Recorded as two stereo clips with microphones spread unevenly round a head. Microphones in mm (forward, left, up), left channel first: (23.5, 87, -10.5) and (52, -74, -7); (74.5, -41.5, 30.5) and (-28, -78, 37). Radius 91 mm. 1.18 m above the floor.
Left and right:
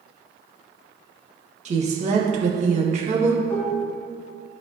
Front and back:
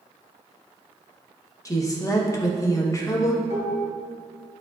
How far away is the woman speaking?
About 1.6 m.